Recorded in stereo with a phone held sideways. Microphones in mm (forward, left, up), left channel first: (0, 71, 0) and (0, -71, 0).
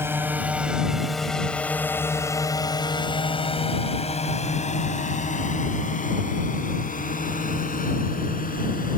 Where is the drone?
15° right (ahead or behind); by 9.0 s 80° left.